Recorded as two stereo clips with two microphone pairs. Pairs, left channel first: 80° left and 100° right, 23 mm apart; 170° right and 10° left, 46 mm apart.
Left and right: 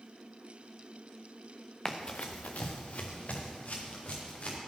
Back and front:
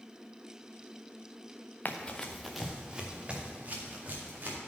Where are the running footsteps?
140° left, 1.0 m; by 4.6 s 60° left, 3.5 m.